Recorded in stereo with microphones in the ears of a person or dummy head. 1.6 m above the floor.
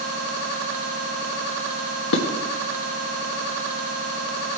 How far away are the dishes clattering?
About 1.4 m.